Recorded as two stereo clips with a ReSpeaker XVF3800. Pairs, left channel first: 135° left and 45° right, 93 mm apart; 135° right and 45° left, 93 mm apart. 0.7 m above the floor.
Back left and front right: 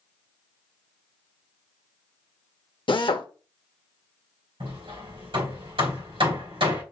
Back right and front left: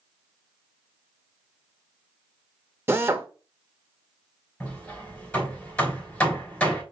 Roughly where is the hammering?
Ahead right.